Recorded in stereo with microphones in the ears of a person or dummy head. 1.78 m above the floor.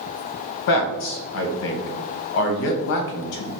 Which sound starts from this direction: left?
A man speaking, at 0.7 s.